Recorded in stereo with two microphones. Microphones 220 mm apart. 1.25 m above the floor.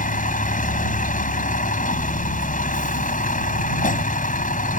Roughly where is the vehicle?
Left.